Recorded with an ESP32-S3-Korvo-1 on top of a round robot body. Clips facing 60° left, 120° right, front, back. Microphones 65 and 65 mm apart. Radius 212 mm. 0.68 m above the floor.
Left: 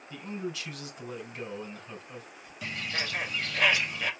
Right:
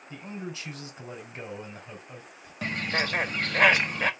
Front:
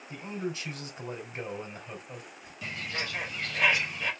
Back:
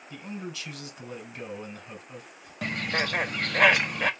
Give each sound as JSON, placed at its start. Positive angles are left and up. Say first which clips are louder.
{"t": 0.1, "sound": "a man speaking", "louder": "left 2 dB, front 3 dB", "azimuth_deg": -55, "distance_m": 3.0}
{"t": 2.6, "sound": "a bird", "louder": "right 6 dB, back 7 dB", "azimuth_deg": -155, "distance_m": 0.9}